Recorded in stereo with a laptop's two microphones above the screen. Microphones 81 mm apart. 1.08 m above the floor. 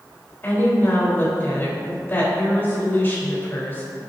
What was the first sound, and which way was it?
A woman speaking, 30° left (ahead or behind).